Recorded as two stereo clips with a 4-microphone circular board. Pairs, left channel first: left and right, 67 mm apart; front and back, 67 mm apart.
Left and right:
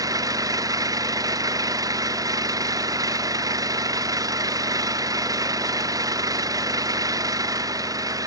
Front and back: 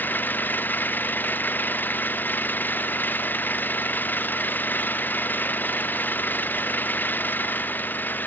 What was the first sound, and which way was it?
An engine running, 65° right.